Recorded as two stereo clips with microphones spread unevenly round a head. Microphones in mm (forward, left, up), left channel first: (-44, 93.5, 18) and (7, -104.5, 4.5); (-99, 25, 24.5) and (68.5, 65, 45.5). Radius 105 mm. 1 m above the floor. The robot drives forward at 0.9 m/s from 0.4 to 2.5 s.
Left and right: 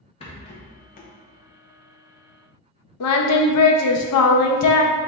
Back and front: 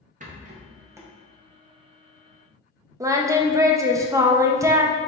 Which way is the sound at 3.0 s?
85° left.